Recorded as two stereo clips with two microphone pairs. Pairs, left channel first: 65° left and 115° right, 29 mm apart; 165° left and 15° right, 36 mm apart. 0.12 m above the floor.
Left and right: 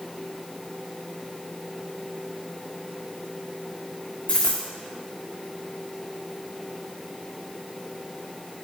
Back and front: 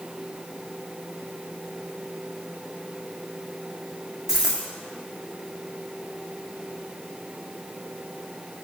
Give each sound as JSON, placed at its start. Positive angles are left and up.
{"t": 4.3, "sound": "a dropped coin", "azimuth_deg": 65, "distance_m": 2.0}